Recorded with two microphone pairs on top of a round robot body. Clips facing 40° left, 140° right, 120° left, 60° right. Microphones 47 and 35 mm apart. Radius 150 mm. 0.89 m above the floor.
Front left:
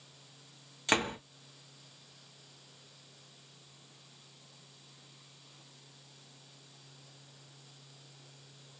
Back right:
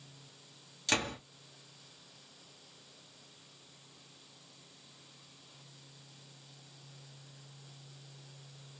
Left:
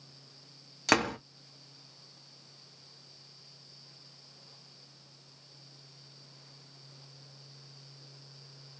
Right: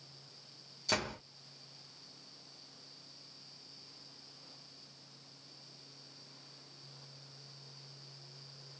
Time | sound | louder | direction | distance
0.9 | a door slam | front left 3 dB, left 9 dB | 105° left | 1.0 m